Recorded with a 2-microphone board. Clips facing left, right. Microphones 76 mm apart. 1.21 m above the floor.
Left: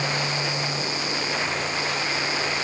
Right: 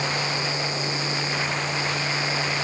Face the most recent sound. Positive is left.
No sound to turn to.